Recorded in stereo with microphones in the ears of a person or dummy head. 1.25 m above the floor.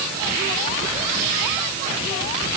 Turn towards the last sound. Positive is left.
No sound to turn to.